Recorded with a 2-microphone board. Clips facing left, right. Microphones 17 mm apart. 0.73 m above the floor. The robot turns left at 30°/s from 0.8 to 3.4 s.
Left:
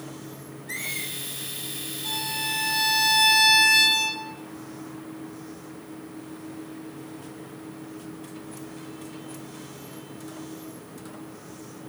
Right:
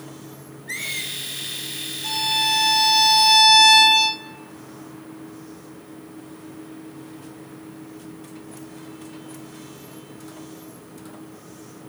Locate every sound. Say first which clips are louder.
0.7 s a squeak: right 4 dB; 35° right (ahead or behind), 2.5 m; by 1.1 s 45° right (ahead or behind), 2.5 m
2.0 s a violin: right 8 dB; 125° right, 2 m; by 4.2 s 165° right, 2 m